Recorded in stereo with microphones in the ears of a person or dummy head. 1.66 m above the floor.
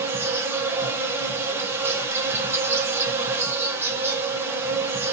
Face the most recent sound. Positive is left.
turn(degrees=-10)  # may be behind; listen again after turning